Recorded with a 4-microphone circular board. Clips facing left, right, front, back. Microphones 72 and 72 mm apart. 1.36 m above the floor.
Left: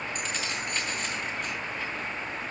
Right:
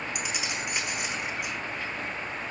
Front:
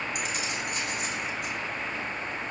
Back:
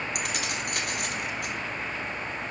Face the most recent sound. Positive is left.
turn(degrees=-165)